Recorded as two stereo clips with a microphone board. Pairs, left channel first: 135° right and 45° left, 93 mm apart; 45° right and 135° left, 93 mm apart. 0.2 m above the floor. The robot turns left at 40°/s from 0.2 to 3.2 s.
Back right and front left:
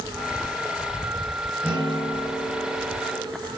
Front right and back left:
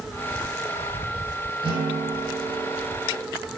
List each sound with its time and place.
1.6 s a guitar: 115° left, 4 m; by 3.3 s 55° left, 4 m